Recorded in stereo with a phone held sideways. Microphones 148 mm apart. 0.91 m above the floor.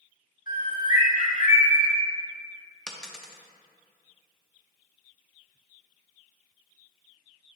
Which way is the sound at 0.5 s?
65° left (ahead or behind).